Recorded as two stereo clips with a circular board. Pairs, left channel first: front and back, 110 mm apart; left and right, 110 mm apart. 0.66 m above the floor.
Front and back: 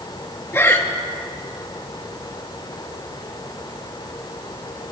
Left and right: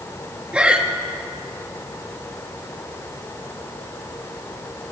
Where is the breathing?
25° right, 1.0 m.